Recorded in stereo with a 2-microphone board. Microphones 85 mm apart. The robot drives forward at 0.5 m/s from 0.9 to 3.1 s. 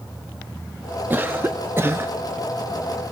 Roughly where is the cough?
Right.